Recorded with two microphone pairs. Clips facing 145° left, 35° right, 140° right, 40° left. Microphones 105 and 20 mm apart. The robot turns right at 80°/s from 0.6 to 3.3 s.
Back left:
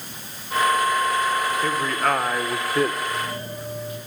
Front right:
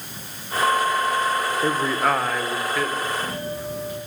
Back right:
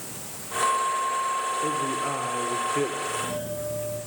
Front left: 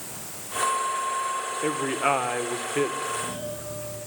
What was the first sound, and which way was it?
A man speaking, 10° left.